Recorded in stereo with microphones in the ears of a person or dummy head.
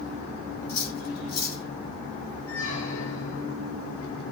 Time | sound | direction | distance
0.7 | cutlery clinking | 65° left (ahead or behind) | 6 m
2.5 | a squeak | 80° left | 5 m